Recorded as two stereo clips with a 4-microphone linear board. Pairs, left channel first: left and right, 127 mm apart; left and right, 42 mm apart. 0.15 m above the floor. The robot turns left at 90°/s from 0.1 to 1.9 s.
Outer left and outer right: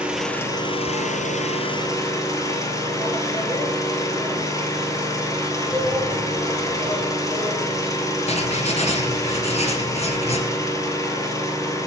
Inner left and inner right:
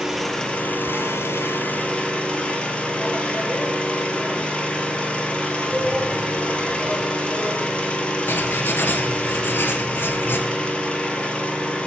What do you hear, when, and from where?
0.0 s an engine running: 170° right, 2 m; by 11.9 s 25° left, 2 m
5.7 s a shout: 25° left (ahead or behind), 2 m
8.3 s writing: 55° left (ahead or behind), 1.5 m